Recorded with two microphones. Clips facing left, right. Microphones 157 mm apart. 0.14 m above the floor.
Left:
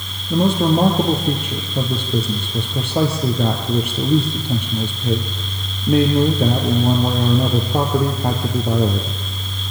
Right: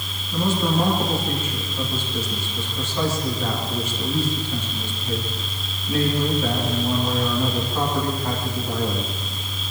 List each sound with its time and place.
0.3 s a man speaking: 70° left (ahead or behind), 3.5 m